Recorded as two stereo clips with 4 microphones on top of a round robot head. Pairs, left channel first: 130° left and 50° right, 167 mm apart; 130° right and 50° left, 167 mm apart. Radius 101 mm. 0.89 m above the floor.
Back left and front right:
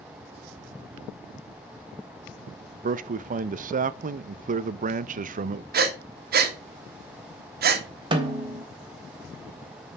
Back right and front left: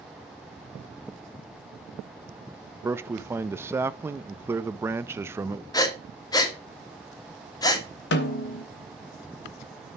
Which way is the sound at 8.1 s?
110° right.